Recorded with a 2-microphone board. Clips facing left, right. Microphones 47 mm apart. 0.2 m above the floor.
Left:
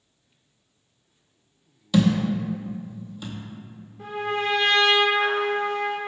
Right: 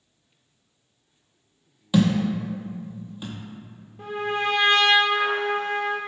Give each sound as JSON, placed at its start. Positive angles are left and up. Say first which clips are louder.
{"t": 1.9, "sound": "a thud", "louder": "even", "side_deg": -20, "distance_m": 0.7}
{"t": 4.0, "sound": "a trumpet", "louder": "right 1 dB", "side_deg": -75, "distance_m": 1.1}